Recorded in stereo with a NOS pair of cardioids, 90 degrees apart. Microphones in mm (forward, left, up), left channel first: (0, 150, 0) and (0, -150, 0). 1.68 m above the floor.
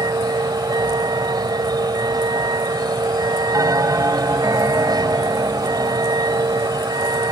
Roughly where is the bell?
Ahead.